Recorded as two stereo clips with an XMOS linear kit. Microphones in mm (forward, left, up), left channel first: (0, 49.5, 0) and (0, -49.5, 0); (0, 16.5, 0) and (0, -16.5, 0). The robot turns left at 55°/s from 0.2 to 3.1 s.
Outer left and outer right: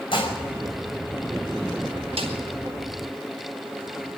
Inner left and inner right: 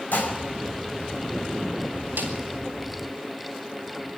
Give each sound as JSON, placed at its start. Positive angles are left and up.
{"t": 0.1, "sound": "dishes clattering", "side_deg": 60, "distance_m": 5.0}
{"t": 2.2, "sound": "a snare drum", "side_deg": -80, "distance_m": 5.0}